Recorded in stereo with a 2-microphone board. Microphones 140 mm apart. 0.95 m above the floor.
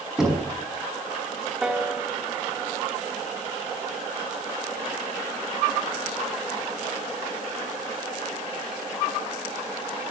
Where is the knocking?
5° right (ahead or behind), 5 m.